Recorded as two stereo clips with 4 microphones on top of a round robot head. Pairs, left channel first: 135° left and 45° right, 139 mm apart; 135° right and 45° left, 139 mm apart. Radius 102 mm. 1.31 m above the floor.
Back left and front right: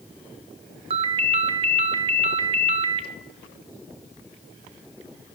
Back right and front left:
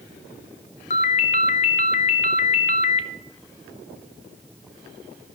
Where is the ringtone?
95° right, 0.5 m.